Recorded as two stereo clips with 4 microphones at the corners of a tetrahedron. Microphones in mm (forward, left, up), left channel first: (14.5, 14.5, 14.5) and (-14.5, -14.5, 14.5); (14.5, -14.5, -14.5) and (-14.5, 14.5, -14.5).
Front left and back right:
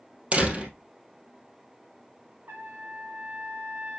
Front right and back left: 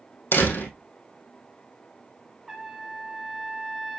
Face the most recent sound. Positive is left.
turn(degrees=-140)